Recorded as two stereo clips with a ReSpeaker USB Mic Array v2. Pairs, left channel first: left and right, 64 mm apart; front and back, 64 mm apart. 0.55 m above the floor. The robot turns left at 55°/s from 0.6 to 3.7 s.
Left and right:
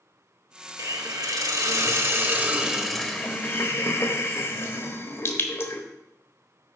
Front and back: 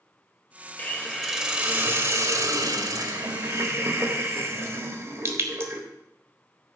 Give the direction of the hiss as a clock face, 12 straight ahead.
2 o'clock.